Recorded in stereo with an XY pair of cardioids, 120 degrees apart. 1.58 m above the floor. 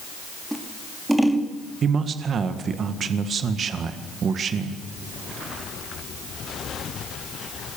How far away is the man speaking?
About 1.8 m.